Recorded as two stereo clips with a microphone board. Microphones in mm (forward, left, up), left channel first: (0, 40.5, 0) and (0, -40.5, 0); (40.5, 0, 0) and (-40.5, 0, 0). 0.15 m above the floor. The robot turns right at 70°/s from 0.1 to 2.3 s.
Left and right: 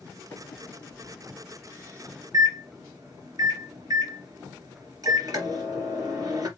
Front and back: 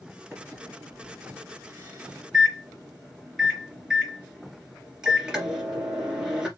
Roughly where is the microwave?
Behind left.